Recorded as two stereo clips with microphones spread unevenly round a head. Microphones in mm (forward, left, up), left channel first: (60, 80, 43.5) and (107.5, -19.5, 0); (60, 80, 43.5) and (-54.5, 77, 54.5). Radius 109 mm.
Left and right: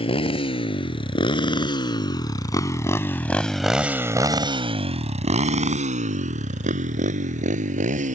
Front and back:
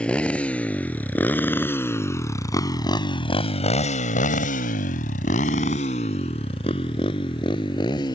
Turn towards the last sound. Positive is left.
turn(degrees=-65)